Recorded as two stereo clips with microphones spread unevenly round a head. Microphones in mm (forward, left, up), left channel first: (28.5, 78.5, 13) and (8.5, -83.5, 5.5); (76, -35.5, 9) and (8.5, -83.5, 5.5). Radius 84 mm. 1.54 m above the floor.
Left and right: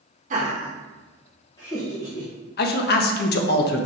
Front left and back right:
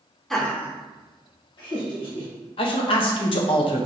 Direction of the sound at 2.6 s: 60° left.